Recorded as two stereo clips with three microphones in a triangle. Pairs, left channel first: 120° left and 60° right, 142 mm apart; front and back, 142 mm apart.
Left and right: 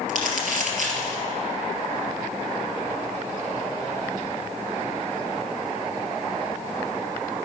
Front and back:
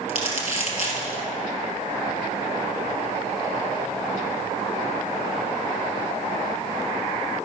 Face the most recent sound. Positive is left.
turn(degrees=-45)